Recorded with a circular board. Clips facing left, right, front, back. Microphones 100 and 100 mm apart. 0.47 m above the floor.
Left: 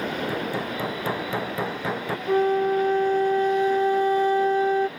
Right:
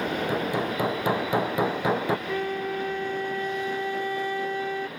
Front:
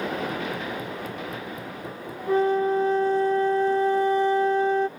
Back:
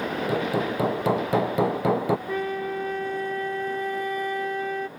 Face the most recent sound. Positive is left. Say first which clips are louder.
# left 8 dB, front 7 dB
turn(degrees=50)